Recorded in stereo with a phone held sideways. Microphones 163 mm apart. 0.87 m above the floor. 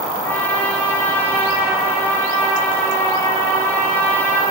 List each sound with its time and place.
0.2 s a trumpet: 10° left (ahead or behind), 6 m